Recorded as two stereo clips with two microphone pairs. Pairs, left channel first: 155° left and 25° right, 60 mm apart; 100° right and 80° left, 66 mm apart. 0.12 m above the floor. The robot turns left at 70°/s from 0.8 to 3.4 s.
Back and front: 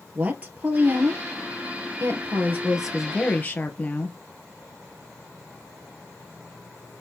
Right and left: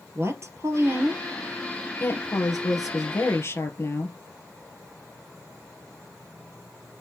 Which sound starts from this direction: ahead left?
A woman speaking, at 0.1 s.